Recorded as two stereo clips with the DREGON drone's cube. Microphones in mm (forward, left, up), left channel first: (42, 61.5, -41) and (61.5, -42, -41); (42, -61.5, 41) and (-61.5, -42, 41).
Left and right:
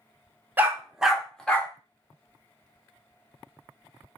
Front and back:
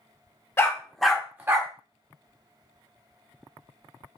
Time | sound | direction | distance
0.6 | a dog barking | 30° right | 0.7 m